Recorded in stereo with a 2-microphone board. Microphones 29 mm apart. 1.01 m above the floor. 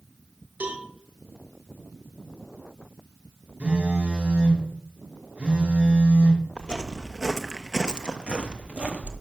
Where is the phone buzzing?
45° right (ahead or behind), 3 m.